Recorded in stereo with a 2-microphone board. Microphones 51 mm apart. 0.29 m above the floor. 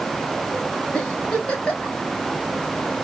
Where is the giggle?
20° left (ahead or behind), 1.1 m.